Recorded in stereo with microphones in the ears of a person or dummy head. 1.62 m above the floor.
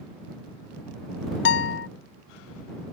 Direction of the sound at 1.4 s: 65° left (ahead or behind).